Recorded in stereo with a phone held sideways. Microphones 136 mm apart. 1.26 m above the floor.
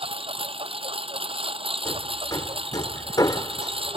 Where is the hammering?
30° left (ahead or behind).